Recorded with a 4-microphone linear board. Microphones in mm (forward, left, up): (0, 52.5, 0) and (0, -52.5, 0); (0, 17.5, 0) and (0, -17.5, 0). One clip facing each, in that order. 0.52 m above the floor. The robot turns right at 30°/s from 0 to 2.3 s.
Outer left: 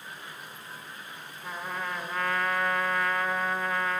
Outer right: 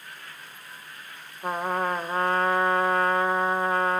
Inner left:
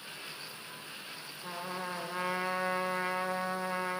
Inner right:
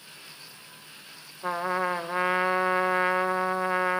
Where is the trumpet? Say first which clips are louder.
Outer right 9 dB, inner right 12 dB; 55° right (ahead or behind), 1.2 m; by 4.0 s 35° right (ahead or behind), 1.2 m.